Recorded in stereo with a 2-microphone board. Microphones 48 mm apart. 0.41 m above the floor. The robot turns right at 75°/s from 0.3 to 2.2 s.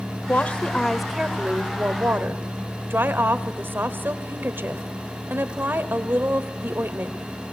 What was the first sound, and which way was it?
A woman speaking, 130° left.